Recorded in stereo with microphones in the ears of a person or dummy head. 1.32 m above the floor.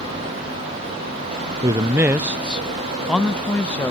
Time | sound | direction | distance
1.6 | a man speaking | 20° right (ahead or behind) | ?